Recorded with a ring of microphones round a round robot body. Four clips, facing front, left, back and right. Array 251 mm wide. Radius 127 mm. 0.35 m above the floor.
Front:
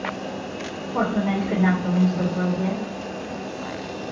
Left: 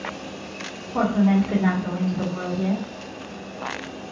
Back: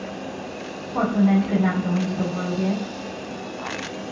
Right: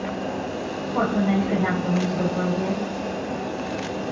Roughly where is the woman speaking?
Ahead.